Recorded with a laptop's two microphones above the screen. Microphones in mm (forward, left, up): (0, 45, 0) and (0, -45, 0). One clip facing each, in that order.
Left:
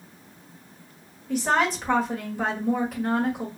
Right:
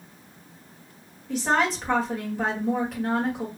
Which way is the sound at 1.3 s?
Centre (ahead or behind).